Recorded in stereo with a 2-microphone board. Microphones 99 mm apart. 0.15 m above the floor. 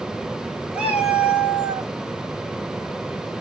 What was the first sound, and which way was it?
A cat meowing, 10° right (ahead or behind).